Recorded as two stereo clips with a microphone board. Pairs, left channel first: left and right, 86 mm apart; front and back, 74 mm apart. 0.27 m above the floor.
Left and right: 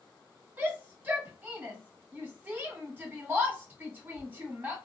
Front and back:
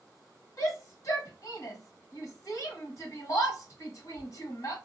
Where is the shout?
25° right, 1.6 m.